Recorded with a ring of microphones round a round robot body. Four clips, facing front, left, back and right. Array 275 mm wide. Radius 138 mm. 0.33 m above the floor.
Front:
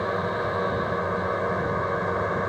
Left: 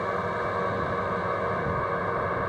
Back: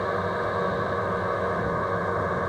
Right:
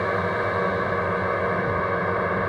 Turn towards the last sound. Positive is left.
turn(degrees=-80)